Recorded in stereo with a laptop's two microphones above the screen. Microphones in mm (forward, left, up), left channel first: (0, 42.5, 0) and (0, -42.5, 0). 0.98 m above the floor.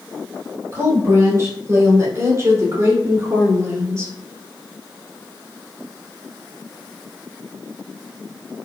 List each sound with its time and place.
0.7 s a woman speaking: 35° right (ahead or behind), 3.5 m; by 4.1 s 40° right (ahead or behind), 1.9 m